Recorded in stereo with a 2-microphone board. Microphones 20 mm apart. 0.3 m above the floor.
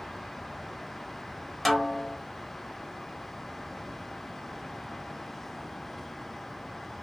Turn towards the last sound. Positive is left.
turn(degrees=5)  # may be behind; listen again after turning